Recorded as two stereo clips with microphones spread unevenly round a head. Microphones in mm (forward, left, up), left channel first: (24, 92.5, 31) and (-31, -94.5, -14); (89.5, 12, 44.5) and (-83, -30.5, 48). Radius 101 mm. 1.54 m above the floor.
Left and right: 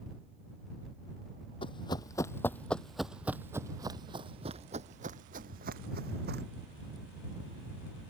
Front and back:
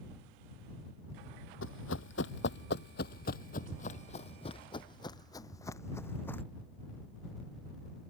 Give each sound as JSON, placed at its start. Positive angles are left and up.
{"t": 1.6, "sound": "running footsteps", "azimuth_deg": 25}